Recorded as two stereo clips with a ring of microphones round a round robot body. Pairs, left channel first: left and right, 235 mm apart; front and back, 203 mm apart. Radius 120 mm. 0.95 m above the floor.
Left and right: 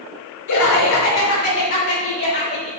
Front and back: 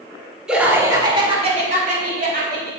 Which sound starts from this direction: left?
Laughter, at 0.5 s.